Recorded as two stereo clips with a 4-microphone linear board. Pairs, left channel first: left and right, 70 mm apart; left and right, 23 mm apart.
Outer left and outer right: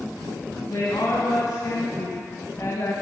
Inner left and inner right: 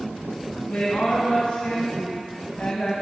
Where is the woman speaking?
70° left (ahead or behind), 3 m; by 2.9 s 40° left (ahead or behind), 2.5 m.